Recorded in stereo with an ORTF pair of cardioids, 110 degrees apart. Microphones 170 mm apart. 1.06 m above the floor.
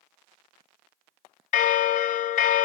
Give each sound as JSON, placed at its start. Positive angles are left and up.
{"t": 1.5, "sound": "a bell", "azimuth_deg": 55, "distance_m": 0.5}